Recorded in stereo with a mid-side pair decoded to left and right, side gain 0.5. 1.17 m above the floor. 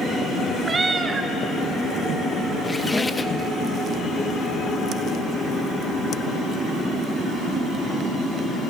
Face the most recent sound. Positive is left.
turn(degrees=20)